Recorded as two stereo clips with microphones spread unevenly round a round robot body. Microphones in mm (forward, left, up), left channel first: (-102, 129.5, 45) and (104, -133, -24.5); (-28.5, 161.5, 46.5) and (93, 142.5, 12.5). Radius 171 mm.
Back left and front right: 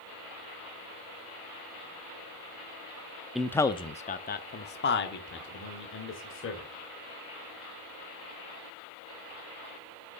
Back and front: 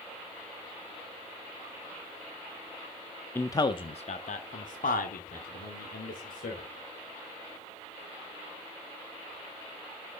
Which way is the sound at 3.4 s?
100° right.